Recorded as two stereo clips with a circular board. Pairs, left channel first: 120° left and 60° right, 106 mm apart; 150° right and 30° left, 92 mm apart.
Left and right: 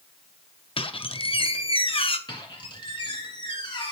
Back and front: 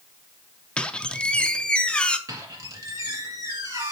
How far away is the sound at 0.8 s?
About 0.5 m.